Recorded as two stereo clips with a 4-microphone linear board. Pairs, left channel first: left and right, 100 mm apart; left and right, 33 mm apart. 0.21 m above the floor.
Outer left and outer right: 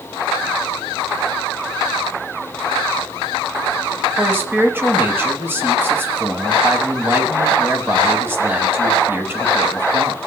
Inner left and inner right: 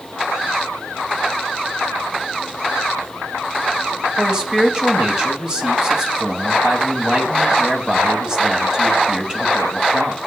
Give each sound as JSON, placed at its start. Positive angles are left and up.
{"t": 4.2, "sound": "a man speaking", "side_deg": -20, "distance_m": 1.0}